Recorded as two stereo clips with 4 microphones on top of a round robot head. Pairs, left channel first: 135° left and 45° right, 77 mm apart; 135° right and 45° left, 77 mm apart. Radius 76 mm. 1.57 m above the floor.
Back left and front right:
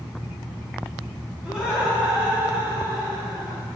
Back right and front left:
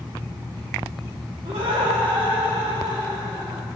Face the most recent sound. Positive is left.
turn(degrees=10)